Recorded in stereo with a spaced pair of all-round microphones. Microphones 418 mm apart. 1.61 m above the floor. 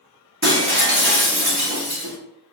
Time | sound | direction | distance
0.4 | breaking glass | 25° right (ahead or behind) | 1.3 m